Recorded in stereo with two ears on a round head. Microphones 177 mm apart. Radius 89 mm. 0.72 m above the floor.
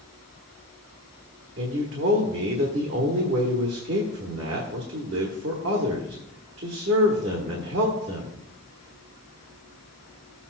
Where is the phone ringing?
I don't hear a phone ringing.